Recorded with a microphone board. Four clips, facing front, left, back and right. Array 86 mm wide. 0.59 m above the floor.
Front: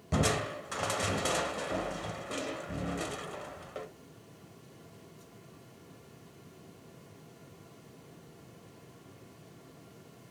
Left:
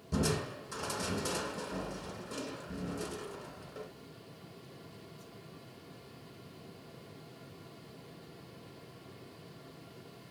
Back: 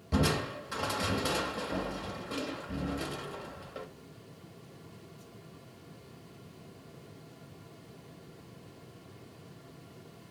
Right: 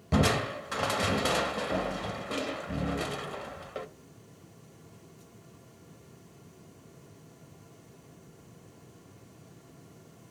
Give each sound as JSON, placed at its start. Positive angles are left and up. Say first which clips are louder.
{"t": 0.1, "sound": "crushing", "louder": "right 7 dB, even", "azimuth_deg": -75, "distance_m": 0.7}